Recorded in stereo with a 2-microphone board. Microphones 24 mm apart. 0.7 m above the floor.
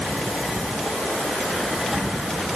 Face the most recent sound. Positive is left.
No sound to turn to.